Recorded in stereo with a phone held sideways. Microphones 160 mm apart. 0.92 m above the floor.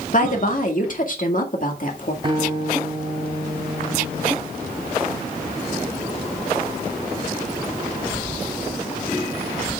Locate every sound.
0.1 s a woman speaking: 55° left (ahead or behind), 1.9 m
2.2 s a guitar: 35° right (ahead or behind), 3.5 m